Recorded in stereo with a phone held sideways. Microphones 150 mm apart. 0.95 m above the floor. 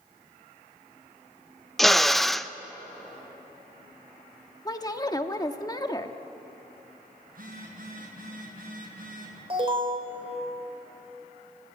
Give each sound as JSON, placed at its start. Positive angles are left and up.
{"t": 1.8, "sound": "a drill", "side_deg": 0, "distance_m": 0.5}
{"t": 4.7, "sound": "a woman speaking", "side_deg": 25, "distance_m": 1.4}
{"t": 7.3, "sound": "a phone buzzing", "side_deg": -65, "distance_m": 6.0}
{"t": 9.5, "sound": "an alarm", "side_deg": -35, "distance_m": 4.5}